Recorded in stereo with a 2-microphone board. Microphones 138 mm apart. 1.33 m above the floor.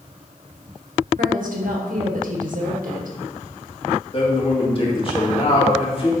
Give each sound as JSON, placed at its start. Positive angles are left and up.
{"t": 1.2, "sound": "a woman speaking", "side_deg": -80, "distance_m": 1.8}
{"t": 4.1, "sound": "a man speaking", "side_deg": 40, "distance_m": 2.5}